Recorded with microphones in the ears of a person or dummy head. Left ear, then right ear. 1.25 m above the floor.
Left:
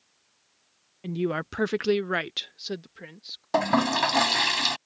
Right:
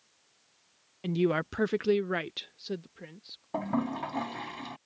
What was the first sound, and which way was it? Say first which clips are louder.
A woman speaking: right 1 dB; 15° right (ahead or behind).